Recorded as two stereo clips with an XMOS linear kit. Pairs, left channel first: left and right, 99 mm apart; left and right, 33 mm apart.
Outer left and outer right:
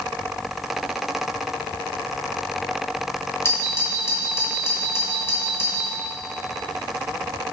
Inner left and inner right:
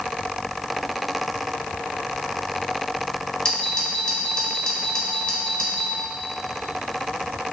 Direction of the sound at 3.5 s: 25° left (ahead or behind).